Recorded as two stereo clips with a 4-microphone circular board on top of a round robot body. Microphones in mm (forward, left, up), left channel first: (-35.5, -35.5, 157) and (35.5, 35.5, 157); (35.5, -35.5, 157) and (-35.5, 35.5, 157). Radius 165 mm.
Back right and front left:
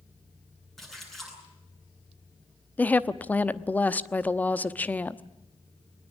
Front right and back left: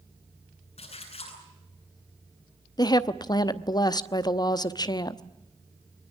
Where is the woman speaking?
65° right, 1.2 m.